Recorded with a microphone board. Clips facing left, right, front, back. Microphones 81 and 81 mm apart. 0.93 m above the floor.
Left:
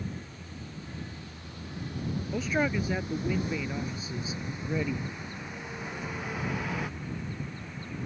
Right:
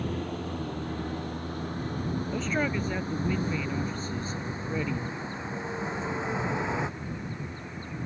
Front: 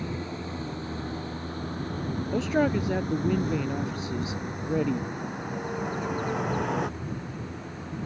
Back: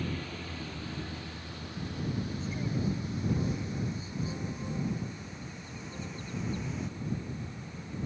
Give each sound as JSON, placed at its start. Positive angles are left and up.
{"t": 0.0, "sound": "a vehicle", "azimuth_deg": -65}
{"t": 2.3, "sound": "a man speaking", "azimuth_deg": 5}